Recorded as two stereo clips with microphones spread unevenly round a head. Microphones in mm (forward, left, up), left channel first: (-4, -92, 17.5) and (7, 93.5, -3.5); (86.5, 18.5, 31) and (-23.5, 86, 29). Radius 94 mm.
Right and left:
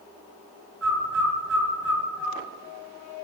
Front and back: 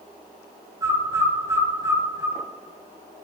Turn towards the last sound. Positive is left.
turn(degrees=85)